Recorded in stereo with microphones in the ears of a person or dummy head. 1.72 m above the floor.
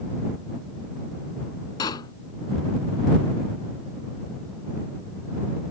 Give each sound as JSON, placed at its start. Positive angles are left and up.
{"t": 1.8, "sound": "a pop", "side_deg": 25}